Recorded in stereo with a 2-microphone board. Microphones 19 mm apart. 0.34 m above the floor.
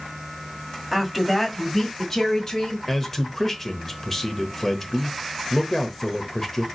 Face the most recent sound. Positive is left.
turn(degrees=20)  # may be behind; listen again after turning